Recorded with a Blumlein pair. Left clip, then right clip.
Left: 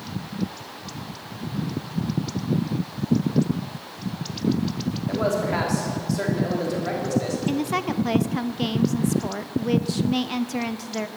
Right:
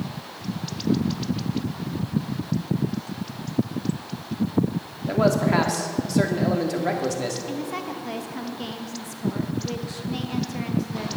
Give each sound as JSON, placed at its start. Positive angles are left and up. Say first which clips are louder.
{"t": 5.1, "sound": "a man speaking", "louder": "right 3 dB", "azimuth_deg": -15, "distance_m": 2.5}
{"t": 7.5, "sound": "a woman speaking", "louder": "left 5 dB", "azimuth_deg": 25, "distance_m": 0.7}